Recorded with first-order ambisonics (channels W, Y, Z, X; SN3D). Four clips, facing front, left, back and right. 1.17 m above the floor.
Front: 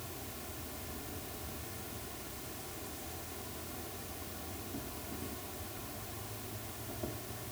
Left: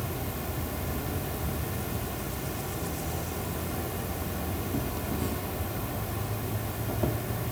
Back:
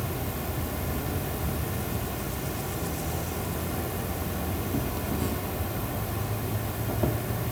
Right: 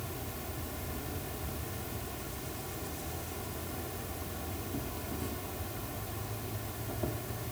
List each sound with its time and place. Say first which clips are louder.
0.0 s an insect: left 7 dB, back 13 dB; 150° left